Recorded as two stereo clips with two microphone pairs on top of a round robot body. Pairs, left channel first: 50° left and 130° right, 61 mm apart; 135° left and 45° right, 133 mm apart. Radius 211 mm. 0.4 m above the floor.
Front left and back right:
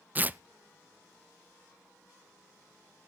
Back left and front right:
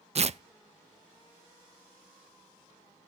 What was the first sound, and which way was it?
Tearing paper, 70° right.